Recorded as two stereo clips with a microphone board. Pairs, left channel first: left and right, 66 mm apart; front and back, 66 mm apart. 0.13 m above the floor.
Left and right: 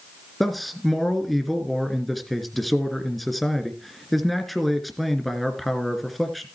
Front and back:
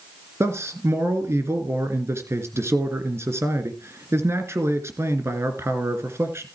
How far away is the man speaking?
About 2 m.